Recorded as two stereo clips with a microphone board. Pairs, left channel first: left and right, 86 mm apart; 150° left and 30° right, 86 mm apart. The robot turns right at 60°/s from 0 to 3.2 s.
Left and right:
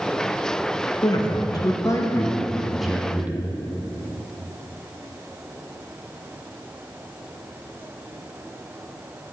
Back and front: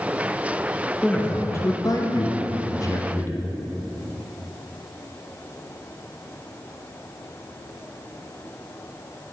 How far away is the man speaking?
About 0.7 m.